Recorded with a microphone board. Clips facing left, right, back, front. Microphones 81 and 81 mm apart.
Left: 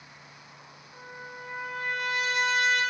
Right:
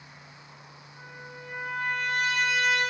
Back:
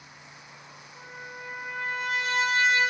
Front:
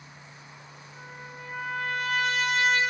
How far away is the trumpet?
About 1.7 m.